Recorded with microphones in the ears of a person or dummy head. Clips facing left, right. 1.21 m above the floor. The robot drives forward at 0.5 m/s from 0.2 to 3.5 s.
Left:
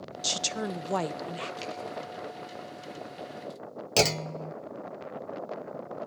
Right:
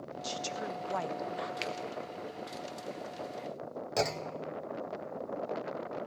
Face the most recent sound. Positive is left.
turn(degrees=40)  # may be behind; listen again after turning